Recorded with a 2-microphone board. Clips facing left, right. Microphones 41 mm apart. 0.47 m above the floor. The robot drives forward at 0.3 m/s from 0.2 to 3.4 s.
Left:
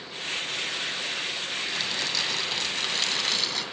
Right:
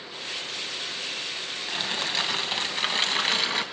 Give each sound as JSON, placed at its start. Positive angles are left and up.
{"t": 1.7, "sound": "crumpling", "side_deg": -30, "distance_m": 2.5}